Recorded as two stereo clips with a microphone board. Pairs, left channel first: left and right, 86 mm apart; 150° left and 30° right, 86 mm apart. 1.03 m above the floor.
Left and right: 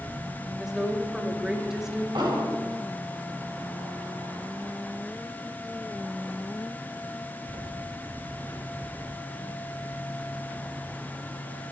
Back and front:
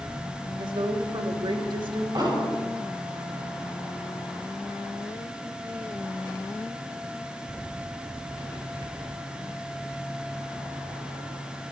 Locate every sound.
0.6 s a woman speaking: 5° right, 1.7 m
2.1 s an explosion: 65° right, 6 m